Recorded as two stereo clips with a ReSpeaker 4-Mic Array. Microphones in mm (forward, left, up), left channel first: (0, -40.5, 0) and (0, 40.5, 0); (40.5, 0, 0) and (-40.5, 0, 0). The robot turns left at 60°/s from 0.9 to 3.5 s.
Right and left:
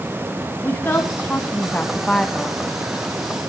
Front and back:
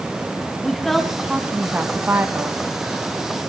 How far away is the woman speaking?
About 1.0 m.